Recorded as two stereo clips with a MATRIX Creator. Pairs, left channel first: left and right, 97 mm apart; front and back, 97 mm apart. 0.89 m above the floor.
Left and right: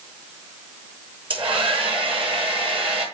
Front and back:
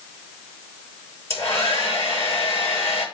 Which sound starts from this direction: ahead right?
A hair dryer, at 1.3 s.